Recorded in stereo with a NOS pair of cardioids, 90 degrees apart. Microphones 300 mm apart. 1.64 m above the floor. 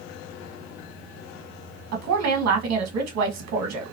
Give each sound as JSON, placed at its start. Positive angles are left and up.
{"t": 1.9, "sound": "a woman speaking", "azimuth_deg": -65, "distance_m": 2.0}